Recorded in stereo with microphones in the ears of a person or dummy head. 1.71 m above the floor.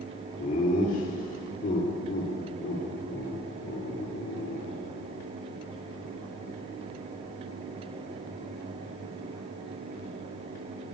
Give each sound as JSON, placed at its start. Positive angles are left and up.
{"t": 0.4, "sound": "laughter", "side_deg": 40, "distance_m": 4.0}